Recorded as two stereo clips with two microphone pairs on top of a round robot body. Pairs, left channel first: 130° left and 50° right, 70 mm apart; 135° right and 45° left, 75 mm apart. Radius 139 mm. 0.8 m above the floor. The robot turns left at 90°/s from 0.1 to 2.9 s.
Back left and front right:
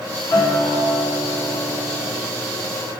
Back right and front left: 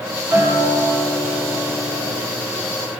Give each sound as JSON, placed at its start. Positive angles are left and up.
{"t": 0.3, "sound": "a guitar", "azimuth_deg": 110, "distance_m": 2.5}